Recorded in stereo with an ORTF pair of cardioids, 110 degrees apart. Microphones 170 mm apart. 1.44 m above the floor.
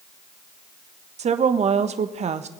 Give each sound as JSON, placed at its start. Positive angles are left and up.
{"t": 1.2, "sound": "a woman speaking", "azimuth_deg": -40, "distance_m": 1.1}